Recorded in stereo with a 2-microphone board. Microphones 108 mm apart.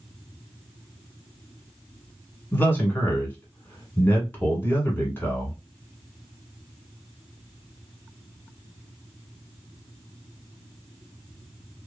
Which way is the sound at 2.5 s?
20° left (ahead or behind).